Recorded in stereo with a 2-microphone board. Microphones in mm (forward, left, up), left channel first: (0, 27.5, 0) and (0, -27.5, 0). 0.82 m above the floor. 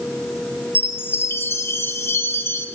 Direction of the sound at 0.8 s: 50° left (ahead or behind).